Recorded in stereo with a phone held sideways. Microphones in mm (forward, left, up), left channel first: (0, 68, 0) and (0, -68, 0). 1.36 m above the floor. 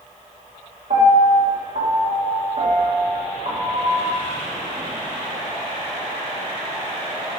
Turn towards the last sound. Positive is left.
turn(degrees=-70)  # may be behind; listen again after turning